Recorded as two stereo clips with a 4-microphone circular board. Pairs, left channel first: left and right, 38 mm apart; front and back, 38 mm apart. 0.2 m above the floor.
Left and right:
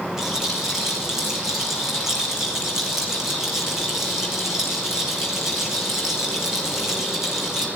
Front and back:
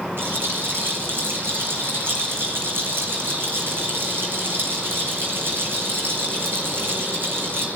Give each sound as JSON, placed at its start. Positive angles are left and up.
{"t": 0.2, "sound": "a rattle", "azimuth_deg": -165, "distance_m": 4.0}